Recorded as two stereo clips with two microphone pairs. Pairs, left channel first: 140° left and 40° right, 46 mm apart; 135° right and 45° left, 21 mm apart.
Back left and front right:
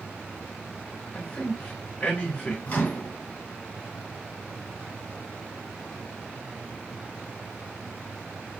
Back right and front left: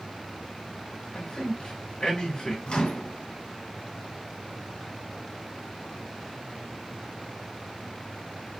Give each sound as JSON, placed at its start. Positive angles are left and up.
{"t": 1.1, "sound": "a man speaking", "azimuth_deg": -160, "distance_m": 2.0}
{"t": 2.7, "sound": "a microwave", "azimuth_deg": -170, "distance_m": 2.5}